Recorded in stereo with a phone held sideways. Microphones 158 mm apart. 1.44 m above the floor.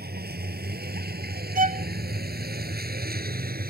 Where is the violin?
60° right (ahead or behind).